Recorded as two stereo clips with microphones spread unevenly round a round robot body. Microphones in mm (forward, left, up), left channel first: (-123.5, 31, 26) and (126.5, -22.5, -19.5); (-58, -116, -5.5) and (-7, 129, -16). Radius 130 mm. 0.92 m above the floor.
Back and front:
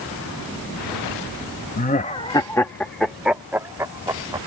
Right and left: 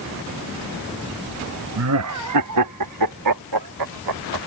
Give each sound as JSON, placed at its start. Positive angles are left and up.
{"t": 1.8, "sound": "laughter", "azimuth_deg": 105}